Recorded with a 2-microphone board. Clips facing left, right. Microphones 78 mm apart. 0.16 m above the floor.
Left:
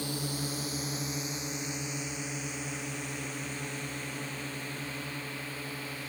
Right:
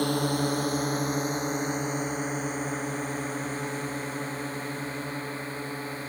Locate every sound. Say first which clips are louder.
0.0 s a drone: right 10 dB; 60° right (ahead or behind); by 6.1 s 35° right (ahead or behind)